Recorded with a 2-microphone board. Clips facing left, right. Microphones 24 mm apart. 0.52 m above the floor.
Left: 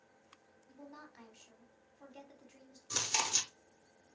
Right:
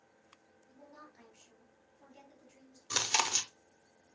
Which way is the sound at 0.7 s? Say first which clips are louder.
Left 2 dB; 40° left (ahead or behind).